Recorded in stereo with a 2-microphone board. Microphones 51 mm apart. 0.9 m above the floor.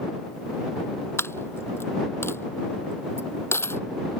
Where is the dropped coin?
55° left (ahead or behind).